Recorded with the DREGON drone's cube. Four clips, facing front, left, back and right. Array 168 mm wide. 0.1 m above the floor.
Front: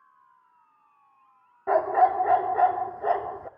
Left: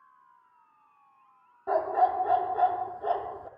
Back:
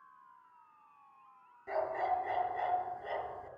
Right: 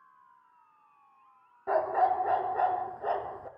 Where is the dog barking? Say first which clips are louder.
Left 1 dB, front 13 dB; 5° right, 0.6 m.